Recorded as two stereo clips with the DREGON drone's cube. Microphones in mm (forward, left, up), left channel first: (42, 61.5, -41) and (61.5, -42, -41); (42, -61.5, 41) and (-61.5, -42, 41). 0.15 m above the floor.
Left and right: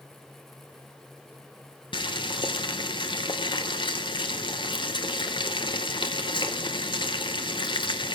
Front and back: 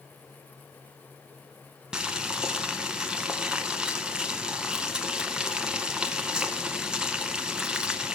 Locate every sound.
1.9 s boiling: 90° left, 0.8 m